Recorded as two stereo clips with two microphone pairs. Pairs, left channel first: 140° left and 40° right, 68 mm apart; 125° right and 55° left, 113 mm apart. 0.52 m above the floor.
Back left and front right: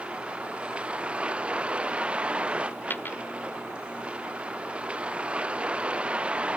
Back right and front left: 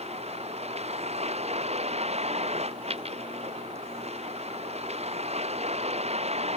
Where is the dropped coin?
80° left.